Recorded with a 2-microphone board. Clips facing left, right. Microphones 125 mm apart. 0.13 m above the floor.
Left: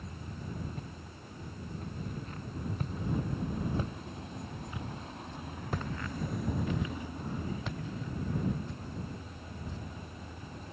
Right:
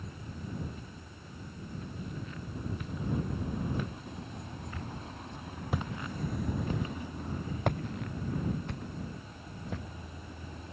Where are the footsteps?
50° left (ahead or behind); by 9.9 s 80° right.